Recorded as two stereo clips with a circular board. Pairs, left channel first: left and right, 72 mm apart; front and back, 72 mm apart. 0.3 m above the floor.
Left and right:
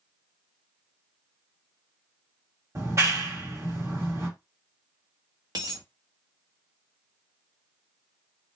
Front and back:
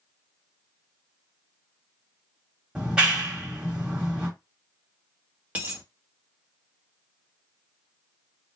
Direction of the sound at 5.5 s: 115° right.